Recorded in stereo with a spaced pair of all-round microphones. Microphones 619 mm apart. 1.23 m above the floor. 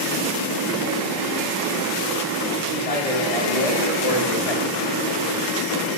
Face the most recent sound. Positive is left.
turn(degrees=50)  # may be behind; listen again after turning